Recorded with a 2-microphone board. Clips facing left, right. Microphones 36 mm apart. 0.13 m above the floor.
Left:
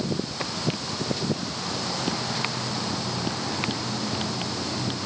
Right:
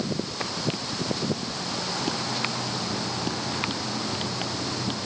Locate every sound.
Only background noise.